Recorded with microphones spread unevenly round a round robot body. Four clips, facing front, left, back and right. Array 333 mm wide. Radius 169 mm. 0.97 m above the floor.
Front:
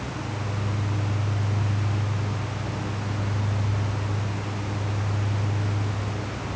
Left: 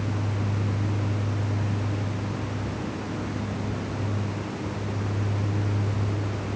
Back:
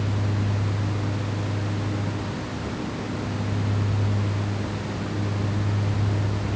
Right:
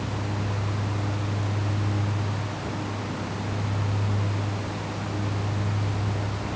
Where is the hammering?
No hammering in this recording.